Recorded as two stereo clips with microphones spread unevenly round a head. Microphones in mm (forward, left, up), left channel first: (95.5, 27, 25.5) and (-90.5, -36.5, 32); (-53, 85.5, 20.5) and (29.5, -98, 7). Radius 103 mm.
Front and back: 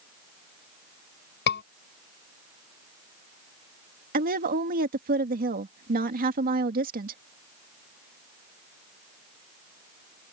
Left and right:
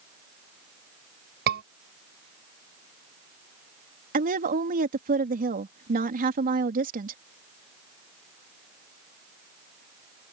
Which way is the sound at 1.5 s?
20° right.